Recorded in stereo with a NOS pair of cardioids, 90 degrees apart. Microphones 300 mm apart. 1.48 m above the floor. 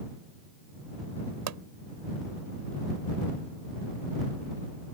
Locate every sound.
1.5 s a pop: 65° right